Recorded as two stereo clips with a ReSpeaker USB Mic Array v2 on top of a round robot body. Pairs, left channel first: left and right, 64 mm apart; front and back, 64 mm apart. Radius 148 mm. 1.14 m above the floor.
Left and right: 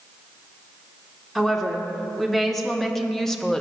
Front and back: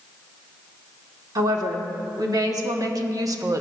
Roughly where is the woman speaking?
Behind.